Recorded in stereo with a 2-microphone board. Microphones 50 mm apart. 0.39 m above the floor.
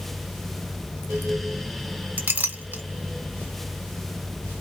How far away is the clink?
About 1.1 m.